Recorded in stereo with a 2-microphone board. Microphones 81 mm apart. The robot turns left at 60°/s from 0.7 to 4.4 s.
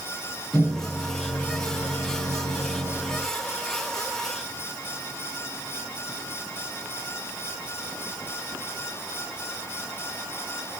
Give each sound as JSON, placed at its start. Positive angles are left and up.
{"t": 0.5, "sound": "a microwave", "azimuth_deg": 10, "distance_m": 3.0}